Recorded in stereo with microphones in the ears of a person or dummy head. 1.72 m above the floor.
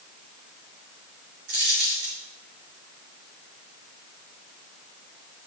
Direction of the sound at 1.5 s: 40° right (ahead or behind).